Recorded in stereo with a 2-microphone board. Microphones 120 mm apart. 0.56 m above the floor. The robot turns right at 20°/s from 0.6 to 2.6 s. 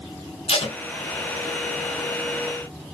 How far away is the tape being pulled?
About 0.7 m.